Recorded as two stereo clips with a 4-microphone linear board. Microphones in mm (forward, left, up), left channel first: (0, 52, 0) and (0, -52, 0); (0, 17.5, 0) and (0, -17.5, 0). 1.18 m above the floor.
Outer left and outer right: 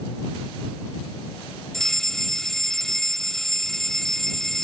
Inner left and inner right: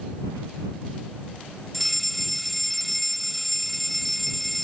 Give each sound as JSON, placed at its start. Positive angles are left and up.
{"t": 1.7, "sound": "a fire alarm", "side_deg": 5}